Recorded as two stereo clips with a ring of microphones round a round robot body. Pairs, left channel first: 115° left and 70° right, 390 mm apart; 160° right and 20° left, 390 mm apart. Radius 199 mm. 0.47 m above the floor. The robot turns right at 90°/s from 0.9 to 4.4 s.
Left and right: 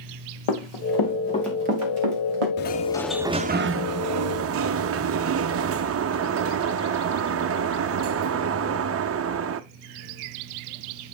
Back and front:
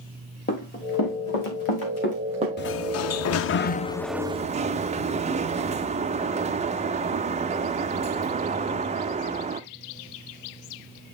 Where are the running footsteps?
135° left, 2.5 m; by 2.5 s 45° right, 2 m.